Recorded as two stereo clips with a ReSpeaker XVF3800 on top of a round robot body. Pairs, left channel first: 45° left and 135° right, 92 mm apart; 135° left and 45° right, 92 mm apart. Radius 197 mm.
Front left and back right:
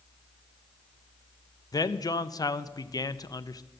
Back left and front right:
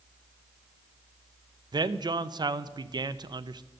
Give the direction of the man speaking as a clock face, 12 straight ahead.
12 o'clock.